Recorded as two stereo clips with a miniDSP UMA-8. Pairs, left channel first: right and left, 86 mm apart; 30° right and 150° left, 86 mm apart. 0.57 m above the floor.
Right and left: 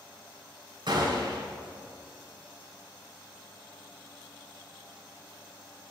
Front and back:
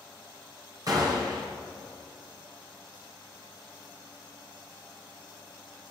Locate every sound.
0.9 s a gunshot: 110° left, 4.5 m